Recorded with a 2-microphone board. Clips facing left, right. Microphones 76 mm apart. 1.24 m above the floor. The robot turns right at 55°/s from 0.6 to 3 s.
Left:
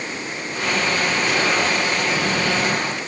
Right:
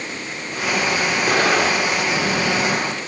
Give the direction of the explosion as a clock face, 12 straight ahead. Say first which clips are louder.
Right 5 dB; 4 o'clock.